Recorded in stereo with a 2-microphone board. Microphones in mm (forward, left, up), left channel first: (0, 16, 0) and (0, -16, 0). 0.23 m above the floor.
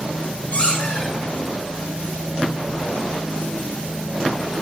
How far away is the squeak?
About 1.5 m.